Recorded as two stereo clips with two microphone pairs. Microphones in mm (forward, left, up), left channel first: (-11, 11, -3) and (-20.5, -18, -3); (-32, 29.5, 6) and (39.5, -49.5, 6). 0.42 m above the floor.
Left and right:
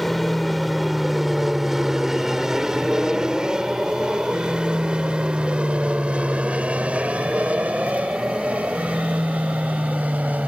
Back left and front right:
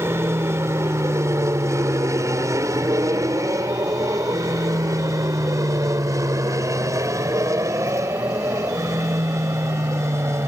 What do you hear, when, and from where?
0.0 s an aircraft: 5° right; by 10.5 s 105° right